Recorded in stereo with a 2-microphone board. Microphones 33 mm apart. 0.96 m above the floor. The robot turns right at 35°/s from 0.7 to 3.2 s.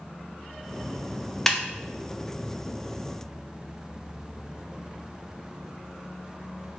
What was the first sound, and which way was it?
A snare drum, 10° left (ahead or behind).